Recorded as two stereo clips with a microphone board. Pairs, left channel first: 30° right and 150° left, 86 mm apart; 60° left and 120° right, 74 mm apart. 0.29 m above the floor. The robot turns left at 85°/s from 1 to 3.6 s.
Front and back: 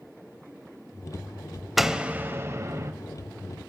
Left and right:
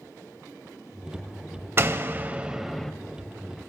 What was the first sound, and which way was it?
A door slam, 125° right.